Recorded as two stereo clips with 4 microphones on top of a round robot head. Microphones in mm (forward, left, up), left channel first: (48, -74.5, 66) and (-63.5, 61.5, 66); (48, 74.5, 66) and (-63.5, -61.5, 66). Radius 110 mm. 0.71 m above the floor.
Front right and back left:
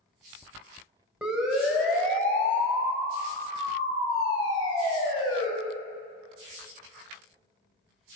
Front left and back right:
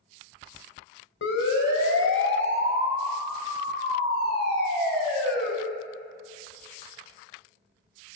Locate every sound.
1.2 s a siren: 45° left, 4 m; by 5.5 s 15° left, 7.5 m